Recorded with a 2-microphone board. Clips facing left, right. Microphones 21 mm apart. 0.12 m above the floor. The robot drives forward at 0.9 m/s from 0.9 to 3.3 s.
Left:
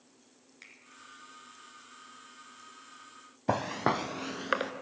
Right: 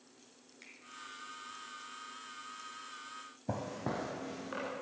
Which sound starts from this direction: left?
Footsteps, at 3.5 s.